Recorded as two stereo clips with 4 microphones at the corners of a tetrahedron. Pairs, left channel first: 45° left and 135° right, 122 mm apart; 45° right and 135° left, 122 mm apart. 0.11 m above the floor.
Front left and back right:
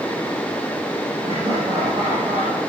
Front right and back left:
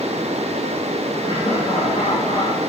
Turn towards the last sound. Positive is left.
turn(degrees=-90)